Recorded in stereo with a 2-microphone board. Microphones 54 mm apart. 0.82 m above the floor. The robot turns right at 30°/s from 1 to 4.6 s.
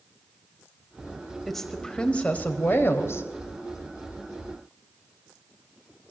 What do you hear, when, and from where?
1.5 s a woman speaking: 5° left, 4 m; by 3.2 s 55° left, 4 m